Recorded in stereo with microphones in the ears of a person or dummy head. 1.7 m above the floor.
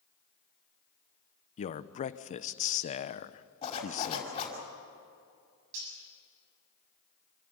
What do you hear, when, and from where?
1.6 s a man speaking: 35° left (ahead or behind), 0.9 m
3.6 s a zipper: 35° left (ahead or behind), 5 m
5.7 s cutlery clinking: 80° right, 7 m